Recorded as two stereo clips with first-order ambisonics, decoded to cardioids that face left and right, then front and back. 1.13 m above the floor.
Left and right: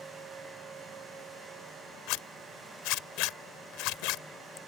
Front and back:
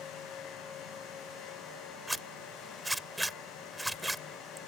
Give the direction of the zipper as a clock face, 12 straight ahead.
9 o'clock.